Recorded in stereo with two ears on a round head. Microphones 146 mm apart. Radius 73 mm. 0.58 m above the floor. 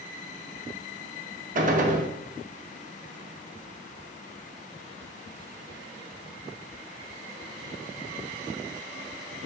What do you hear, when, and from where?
1.6 s a gunshot: 50° right (ahead or behind), 0.6 m